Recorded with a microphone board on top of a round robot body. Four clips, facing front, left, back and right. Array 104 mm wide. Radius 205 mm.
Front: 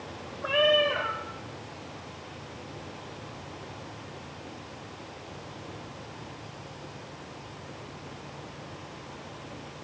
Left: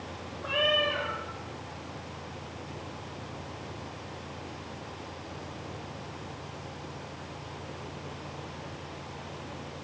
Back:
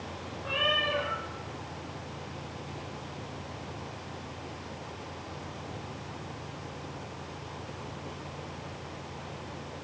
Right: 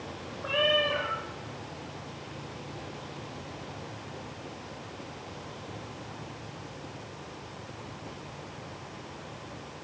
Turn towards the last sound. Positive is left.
turn(degrees=-5)